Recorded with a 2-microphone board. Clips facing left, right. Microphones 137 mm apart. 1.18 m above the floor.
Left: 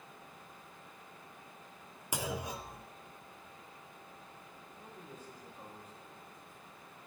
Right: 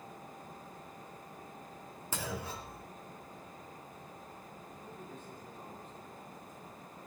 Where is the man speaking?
10° left (ahead or behind), 6.5 m.